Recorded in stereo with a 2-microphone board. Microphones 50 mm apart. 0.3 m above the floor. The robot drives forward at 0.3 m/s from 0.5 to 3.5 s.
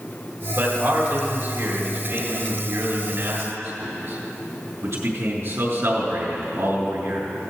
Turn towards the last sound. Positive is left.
turn(degrees=-65)  # may be behind; listen again after turning